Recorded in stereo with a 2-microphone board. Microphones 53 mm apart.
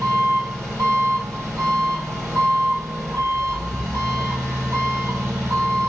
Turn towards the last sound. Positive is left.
turn(degrees=-55)  # may be behind; listen again after turning